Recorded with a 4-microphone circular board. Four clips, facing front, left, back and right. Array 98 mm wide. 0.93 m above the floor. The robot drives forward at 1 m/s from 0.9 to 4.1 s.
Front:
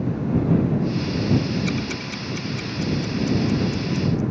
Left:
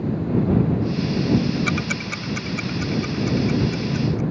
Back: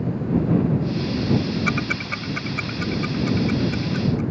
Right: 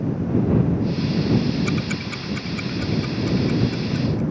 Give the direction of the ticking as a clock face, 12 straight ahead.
7 o'clock.